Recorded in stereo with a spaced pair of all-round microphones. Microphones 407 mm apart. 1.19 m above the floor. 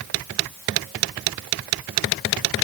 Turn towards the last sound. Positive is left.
No sound to turn to.